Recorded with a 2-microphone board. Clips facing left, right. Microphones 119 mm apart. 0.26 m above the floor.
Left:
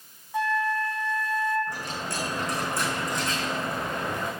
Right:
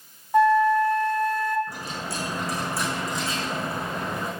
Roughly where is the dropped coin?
Centre.